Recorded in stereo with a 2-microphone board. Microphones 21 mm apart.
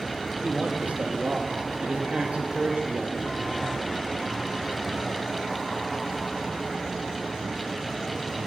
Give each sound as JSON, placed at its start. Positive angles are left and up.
{"t": 0.4, "sound": "a man speaking", "side_deg": -75, "distance_m": 3.0}